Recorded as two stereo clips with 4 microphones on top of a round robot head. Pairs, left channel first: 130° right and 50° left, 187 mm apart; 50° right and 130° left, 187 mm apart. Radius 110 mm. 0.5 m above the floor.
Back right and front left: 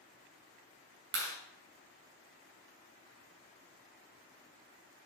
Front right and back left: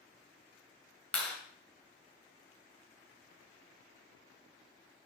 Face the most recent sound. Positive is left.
turn(degrees=35)